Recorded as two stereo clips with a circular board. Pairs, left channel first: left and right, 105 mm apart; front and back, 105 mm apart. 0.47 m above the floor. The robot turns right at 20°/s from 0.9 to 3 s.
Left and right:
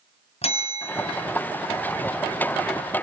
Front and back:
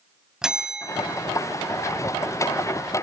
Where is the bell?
95° left, 2 m; by 1.3 s 105° left, 2 m.